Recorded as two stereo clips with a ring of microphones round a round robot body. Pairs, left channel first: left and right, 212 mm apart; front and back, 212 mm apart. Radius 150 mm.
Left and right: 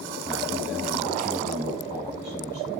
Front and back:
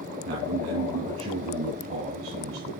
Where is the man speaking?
175° right, 2.5 m.